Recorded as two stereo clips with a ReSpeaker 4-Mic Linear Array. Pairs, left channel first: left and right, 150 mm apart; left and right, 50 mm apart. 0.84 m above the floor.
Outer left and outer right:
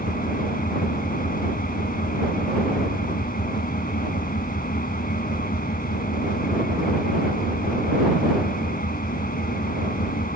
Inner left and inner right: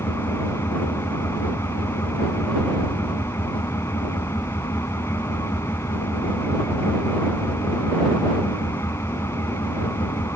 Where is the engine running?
70° left (ahead or behind).